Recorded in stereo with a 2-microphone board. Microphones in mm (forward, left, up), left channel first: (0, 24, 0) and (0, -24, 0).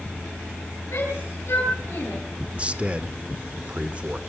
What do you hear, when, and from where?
0.9 s a shout: 55° left (ahead or behind), 10 m
2.5 s a man speaking: 25° right (ahead or behind), 1.2 m